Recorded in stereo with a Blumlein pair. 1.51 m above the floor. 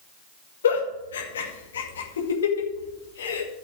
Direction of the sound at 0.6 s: 65° left.